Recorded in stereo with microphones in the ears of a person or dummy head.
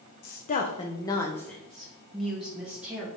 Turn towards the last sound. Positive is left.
turn(degrees=-5)  # may be behind; listen again after turning